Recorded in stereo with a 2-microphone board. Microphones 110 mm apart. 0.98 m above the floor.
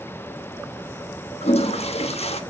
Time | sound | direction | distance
1.4 | a toilet flushing | 70° left (ahead or behind) | 1.0 m